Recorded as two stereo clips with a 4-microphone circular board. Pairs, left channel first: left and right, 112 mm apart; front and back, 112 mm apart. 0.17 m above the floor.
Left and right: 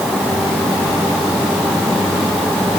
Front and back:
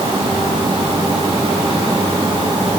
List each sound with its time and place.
Only background noise.